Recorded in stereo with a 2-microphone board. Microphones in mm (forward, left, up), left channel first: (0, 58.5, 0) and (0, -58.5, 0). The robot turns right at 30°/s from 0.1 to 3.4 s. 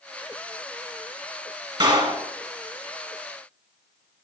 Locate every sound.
1.8 s a clap: 45° right (ahead or behind), 1.6 m; by 2.2 s 50° right (ahead or behind), 1.6 m